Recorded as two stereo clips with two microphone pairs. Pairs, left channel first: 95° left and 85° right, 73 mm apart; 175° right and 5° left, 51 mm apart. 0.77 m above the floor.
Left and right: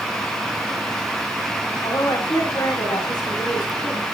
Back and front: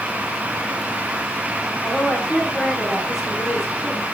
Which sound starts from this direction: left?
A woman speaking, at 1.8 s.